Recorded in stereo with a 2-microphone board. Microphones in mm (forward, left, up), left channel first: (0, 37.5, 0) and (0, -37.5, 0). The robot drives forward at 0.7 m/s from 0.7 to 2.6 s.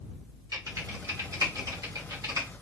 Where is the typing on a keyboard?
50° right (ahead or behind), 2.5 m; by 2.5 s 55° right (ahead or behind), 2 m.